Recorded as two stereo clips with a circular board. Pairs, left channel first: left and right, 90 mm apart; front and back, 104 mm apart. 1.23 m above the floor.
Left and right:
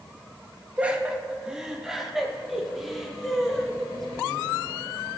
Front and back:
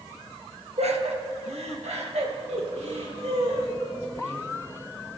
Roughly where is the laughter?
Behind.